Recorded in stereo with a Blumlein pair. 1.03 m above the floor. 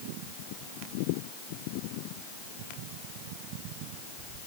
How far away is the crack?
I don't hear a crack.